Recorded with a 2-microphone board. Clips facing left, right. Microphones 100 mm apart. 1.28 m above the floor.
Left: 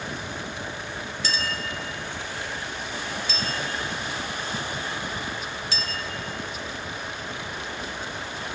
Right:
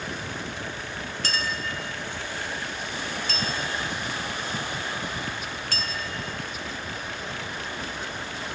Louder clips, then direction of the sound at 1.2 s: Even; 50° right (ahead or behind).